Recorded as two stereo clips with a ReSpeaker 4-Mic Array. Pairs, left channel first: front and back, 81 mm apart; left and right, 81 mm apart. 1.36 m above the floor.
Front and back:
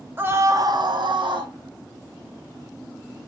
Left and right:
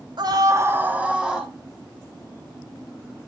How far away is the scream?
About 1.1 m.